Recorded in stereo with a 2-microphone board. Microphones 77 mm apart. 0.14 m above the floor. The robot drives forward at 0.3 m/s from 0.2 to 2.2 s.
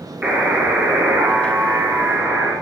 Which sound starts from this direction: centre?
A buzzer, at 0.2 s.